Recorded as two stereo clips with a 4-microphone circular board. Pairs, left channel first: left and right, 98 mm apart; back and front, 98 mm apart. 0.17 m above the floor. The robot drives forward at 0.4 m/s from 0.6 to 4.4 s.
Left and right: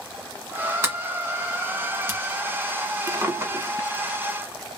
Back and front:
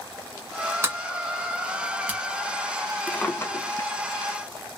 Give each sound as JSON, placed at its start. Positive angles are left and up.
{"t": 0.8, "sound": "a sliding door", "azimuth_deg": -40, "distance_m": 1.7}
{"t": 3.1, "sound": "a drawer", "azimuth_deg": -115, "distance_m": 0.6}